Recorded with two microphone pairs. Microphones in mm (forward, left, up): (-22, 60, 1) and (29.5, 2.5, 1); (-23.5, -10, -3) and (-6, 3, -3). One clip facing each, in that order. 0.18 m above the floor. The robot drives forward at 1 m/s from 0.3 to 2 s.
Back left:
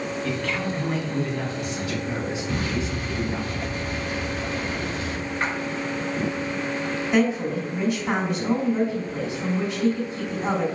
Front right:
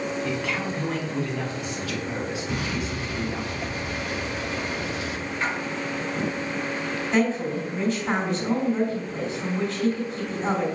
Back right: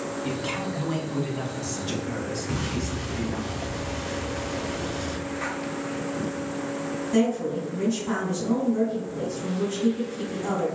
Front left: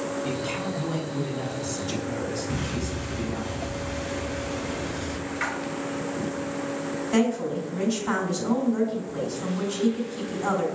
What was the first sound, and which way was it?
A man speaking, 85° right.